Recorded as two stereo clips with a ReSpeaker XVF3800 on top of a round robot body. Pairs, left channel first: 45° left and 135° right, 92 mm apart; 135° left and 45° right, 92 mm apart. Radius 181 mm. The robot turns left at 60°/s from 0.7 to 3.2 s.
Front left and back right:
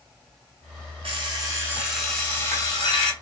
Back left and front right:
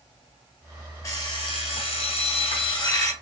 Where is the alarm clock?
165° right, 0.6 m; by 3.1 s 70° left, 0.6 m.